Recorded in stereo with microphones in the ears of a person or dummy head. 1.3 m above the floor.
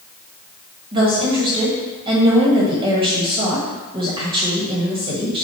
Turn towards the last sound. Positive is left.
turn(degrees=-25)  # may be behind; listen again after turning